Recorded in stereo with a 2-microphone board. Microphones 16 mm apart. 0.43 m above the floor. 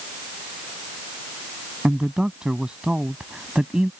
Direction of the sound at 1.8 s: 50° right (ahead or behind).